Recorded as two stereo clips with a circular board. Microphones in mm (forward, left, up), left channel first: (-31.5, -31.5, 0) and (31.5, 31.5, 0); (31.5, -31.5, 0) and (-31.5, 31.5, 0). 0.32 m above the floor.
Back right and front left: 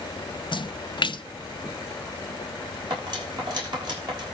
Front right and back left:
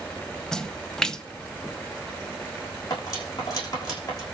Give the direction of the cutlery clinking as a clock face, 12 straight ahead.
12 o'clock.